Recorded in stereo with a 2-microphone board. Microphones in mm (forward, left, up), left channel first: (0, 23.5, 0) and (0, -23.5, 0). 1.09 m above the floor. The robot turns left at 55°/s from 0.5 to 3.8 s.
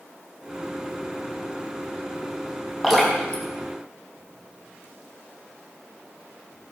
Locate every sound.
2.8 s dripping: 5° left (ahead or behind), 5 m; by 4.8 s 55° left (ahead or behind), 5 m